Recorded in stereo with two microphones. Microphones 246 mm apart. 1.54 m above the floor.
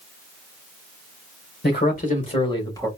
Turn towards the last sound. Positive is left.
turn(degrees=10)  # may be behind; listen again after turning